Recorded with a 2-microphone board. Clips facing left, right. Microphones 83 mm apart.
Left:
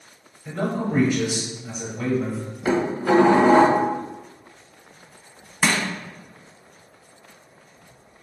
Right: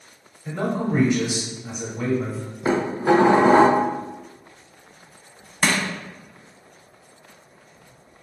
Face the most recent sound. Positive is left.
turn(degrees=10)  # may be behind; listen again after turning